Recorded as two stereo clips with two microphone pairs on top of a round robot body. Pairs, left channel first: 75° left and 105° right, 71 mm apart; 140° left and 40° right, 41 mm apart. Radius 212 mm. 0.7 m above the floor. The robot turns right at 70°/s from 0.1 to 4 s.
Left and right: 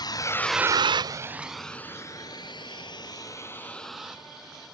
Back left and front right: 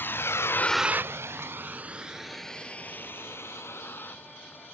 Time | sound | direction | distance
0.0 | a vehicle | 100° left | ?